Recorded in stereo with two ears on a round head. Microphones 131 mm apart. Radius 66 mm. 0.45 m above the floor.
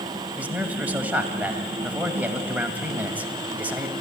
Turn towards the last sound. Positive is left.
turn(degrees=-10)  # may be behind; listen again after turning